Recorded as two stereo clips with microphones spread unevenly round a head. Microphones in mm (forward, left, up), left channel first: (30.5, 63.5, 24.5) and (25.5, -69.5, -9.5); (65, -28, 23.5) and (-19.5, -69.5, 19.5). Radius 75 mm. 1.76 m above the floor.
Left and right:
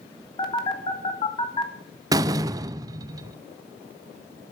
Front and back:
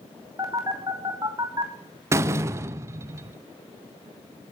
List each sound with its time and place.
0.4 s a phone buzzing: 140° left, 1.6 m
2.1 s a door slam: 160° right, 0.6 m